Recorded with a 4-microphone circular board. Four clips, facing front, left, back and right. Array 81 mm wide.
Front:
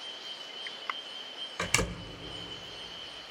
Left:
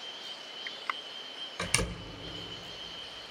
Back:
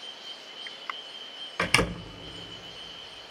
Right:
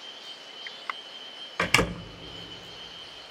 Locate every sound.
1.6 s a door slam: 125° right, 0.6 m